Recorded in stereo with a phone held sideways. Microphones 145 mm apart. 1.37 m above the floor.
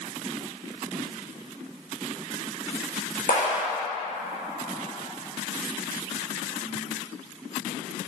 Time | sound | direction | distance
3.3 | a clap | 65° left (ahead or behind) | 3.5 m